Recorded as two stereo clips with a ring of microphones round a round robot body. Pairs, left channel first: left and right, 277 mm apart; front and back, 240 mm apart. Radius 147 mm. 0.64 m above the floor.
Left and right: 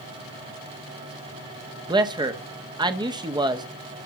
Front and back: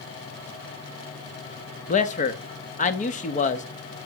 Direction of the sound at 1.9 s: 25° right.